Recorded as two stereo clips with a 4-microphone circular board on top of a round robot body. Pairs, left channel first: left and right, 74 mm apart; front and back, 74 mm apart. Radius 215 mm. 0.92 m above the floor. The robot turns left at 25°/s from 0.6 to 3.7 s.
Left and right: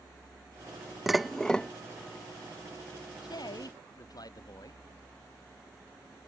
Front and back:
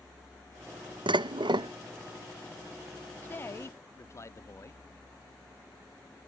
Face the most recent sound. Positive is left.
turn(degrees=55)